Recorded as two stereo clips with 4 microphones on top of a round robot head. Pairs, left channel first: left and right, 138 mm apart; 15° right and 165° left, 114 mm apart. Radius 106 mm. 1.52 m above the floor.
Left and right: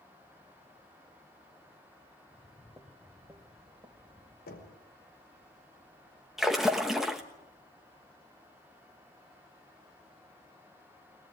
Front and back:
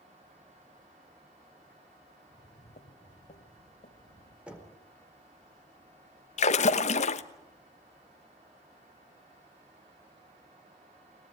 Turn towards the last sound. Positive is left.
turn(degrees=-5)